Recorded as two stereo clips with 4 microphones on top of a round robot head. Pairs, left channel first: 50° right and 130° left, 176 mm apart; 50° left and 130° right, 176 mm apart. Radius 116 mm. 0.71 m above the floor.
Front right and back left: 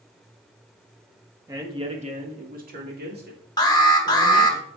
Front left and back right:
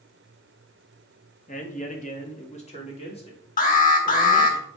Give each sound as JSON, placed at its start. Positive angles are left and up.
{"t": 1.5, "sound": "a man speaking", "azimuth_deg": 65, "distance_m": 1.4}
{"t": 3.6, "sound": "an alarm", "azimuth_deg": 15, "distance_m": 1.3}